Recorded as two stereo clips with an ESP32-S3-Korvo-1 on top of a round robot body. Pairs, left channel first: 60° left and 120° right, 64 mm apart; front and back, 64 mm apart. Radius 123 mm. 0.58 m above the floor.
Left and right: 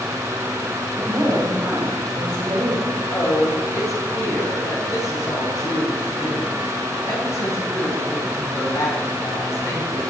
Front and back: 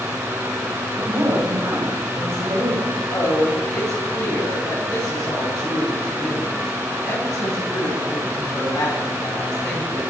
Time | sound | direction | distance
1.0 | a woman speaking | 160° right | 3.5 m
3.1 | a woman speaking | 20° left | 5 m